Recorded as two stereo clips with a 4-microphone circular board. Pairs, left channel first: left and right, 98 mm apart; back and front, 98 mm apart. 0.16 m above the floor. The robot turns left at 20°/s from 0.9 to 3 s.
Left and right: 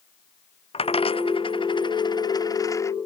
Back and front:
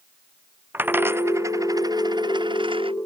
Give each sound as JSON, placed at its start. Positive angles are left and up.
{"t": 0.7, "sound": "a dropped coin", "azimuth_deg": 70}